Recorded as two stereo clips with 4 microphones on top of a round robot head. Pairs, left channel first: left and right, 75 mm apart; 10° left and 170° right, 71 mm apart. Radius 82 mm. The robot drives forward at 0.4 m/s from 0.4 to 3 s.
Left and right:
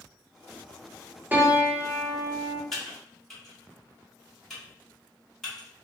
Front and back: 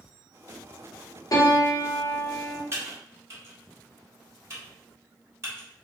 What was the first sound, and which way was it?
A piano, 25° right.